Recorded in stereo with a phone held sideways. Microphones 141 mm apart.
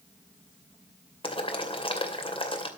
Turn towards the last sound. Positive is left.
turn(degrees=40)  # may be behind; listen again after turning